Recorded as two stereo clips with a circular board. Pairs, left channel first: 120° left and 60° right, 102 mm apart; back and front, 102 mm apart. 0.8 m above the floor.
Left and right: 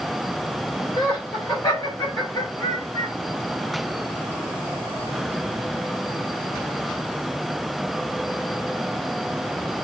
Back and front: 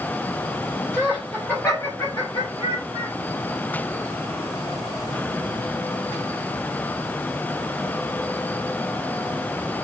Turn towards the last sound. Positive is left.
turn(degrees=180)